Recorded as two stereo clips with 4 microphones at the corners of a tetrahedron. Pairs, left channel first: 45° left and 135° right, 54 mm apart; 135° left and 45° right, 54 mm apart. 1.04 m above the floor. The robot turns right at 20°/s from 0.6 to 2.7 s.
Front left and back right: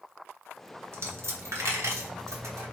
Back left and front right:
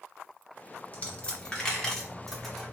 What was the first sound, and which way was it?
A dropped coin, 165° right.